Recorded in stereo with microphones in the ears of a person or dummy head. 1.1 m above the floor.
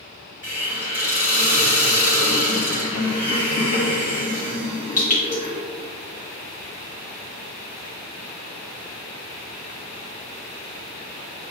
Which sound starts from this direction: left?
A hiss, at 0.4 s.